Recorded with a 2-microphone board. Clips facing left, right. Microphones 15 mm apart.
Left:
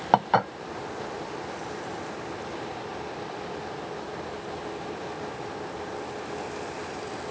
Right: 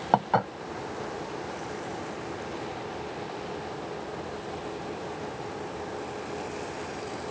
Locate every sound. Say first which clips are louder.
0.1 s dishes clattering: left 3 dB; 30° left (ahead or behind)